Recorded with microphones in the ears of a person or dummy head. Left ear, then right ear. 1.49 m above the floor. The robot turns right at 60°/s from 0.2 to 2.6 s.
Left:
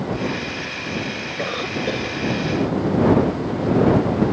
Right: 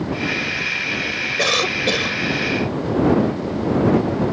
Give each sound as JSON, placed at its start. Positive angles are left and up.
{"t": 1.4, "sound": "a cough", "azimuth_deg": -90}